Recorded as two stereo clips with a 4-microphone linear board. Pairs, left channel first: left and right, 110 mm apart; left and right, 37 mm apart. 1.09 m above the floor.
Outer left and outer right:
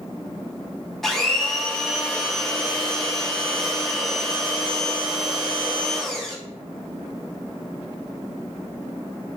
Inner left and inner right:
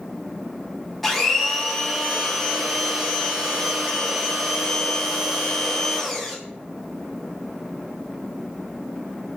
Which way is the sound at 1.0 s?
5° left (ahead or behind).